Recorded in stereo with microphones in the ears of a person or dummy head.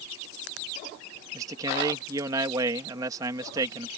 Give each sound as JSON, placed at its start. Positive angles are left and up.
{"t": 1.3, "sound": "a man speaking", "side_deg": -20}